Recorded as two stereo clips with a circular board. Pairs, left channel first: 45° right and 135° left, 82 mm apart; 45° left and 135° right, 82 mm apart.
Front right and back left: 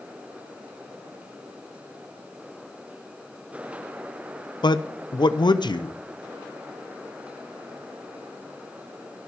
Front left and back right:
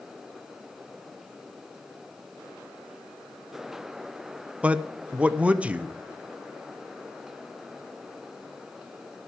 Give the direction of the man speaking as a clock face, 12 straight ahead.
2 o'clock.